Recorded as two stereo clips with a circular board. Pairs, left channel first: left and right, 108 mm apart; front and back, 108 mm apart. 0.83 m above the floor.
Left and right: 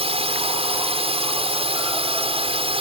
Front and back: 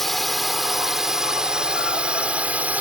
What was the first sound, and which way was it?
A drone, 90° right.